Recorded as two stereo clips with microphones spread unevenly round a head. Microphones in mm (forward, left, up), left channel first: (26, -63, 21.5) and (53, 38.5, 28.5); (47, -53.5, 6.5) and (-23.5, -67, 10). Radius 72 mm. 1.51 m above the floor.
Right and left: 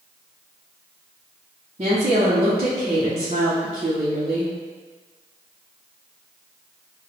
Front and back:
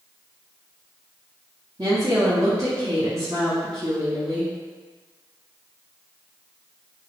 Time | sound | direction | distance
1.8 | a woman speaking | 125° left | 0.7 m